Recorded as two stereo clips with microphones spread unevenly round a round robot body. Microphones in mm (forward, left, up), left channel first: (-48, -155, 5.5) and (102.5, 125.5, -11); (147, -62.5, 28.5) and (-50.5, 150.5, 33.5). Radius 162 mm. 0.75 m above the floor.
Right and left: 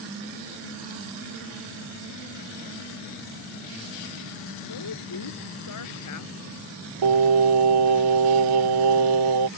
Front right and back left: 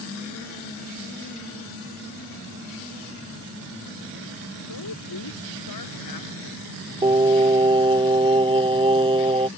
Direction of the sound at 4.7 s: 85° right.